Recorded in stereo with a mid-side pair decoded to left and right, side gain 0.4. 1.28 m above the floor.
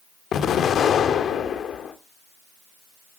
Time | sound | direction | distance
0.3 | an explosion | 70° left | 1.9 m